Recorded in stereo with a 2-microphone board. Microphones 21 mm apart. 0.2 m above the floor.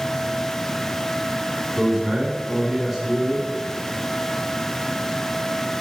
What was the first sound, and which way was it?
A man speaking, 20° right (ahead or behind).